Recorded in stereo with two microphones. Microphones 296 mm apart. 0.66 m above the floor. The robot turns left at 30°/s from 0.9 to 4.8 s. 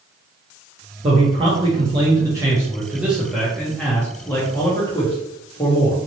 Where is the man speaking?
20° right (ahead or behind), 1.1 m; by 6.0 s 15° left (ahead or behind), 1.1 m.